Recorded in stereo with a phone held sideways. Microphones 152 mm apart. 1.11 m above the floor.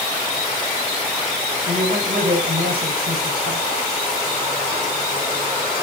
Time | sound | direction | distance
1.7 | a man speaking | 80° right | 8 m